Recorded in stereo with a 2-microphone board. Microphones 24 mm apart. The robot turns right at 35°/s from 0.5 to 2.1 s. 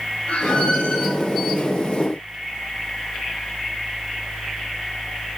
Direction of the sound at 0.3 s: 75° left (ahead or behind).